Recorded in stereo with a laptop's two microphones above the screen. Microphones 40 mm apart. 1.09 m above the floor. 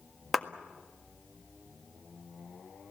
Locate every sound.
0.3 s a clap: centre (ahead or behind), 1.6 m